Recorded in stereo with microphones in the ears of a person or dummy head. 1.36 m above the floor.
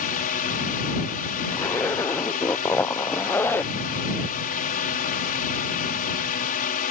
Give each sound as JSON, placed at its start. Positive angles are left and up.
{"t": 0.0, "sound": "a drone", "side_deg": 40}
{"t": 1.5, "sound": "a zipper", "side_deg": 10}